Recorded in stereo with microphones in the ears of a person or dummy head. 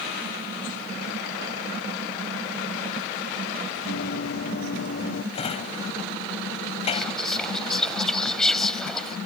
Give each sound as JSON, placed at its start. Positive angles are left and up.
{"t": 3.9, "sound": "running footsteps", "side_deg": 70}
{"t": 5.3, "sound": "a drawer", "side_deg": 35}
{"t": 6.9, "sound": "whispering", "side_deg": 5}